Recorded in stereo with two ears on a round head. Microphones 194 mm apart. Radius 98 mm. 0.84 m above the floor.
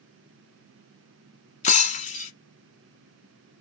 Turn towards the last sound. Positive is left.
turn(degrees=30)  # may be behind; listen again after turning